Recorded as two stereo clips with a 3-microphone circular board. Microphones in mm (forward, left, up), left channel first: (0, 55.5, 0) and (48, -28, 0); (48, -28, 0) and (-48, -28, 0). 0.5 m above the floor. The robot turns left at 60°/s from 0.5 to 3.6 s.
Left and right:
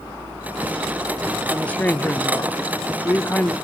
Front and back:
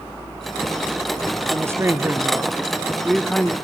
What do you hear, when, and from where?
1.5 s a woman speaking: 170° right, 0.8 m; by 3.5 s 65° left, 0.8 m